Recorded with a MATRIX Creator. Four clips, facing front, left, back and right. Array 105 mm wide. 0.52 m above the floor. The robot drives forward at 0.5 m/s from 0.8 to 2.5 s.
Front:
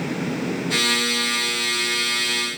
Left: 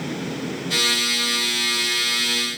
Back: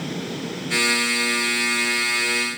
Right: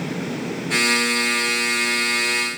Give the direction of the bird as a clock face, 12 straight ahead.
I don't hear a bird.